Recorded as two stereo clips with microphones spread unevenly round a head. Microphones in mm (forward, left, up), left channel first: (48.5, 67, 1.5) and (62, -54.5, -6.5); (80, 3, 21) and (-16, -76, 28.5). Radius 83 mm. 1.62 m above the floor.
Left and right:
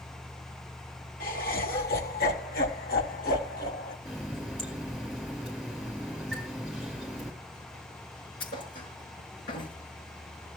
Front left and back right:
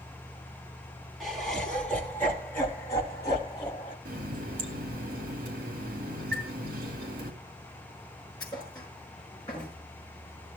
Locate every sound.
1.2 s laughter: 130° left, 4 m; by 4.0 s 100° left, 3.5 m
4.0 s a running tap: straight behind, 2 m
6.3 s a chime: straight behind, 2.5 m
8.4 s a thud: 110° left, 6 m